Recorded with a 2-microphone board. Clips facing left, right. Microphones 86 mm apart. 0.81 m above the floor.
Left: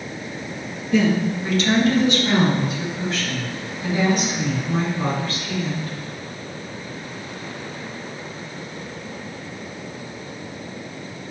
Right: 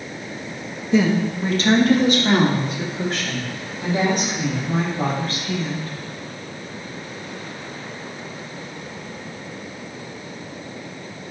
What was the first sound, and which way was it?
A woman speaking, 20° right (ahead or behind).